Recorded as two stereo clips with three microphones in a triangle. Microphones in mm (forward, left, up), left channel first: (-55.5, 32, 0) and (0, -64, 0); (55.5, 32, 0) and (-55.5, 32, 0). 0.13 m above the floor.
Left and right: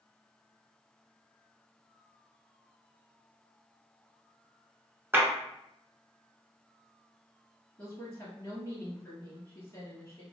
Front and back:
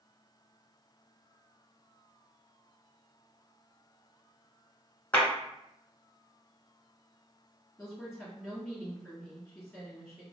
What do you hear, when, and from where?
5.1 s a clap: 50° right, 1.1 m
7.8 s a woman speaking: 85° left, 1.8 m